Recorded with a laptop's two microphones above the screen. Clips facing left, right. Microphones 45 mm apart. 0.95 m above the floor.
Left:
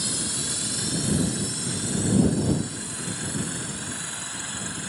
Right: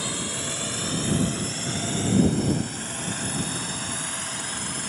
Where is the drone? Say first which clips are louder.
Right 2 dB; 35° right (ahead or behind); by 4.9 s 65° right (ahead or behind).